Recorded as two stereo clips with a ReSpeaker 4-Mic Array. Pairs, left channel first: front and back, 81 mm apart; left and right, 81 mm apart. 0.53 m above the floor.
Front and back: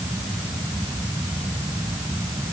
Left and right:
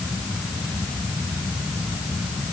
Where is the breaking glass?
I don't hear breaking glass.